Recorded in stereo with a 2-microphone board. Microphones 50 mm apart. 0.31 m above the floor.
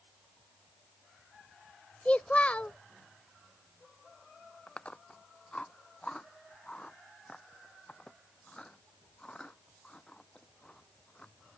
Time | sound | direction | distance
2.0 | a child speaking | 30° left (ahead or behind) | ?
4.7 | chewing | 20° left (ahead or behind) | ?